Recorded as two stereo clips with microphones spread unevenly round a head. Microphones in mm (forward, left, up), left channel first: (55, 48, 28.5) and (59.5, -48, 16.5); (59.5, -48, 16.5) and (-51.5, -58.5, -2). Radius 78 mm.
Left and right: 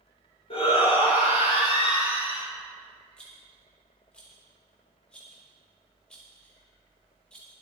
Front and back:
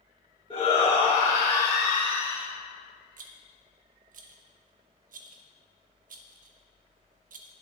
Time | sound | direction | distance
0.5 | a shout | 70° left | 3.5 m
3.2 | a rattle | 175° left | 1.0 m